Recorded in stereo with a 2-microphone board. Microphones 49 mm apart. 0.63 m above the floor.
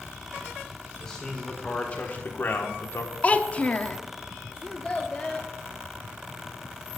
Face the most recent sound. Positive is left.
turn(degrees=20)  # may be behind; listen again after turning